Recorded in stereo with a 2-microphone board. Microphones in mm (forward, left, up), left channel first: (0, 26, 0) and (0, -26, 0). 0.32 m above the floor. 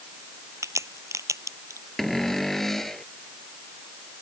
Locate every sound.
0.6 s a crack: 80° right
2.0 s a cupboard door: 5° left (ahead or behind)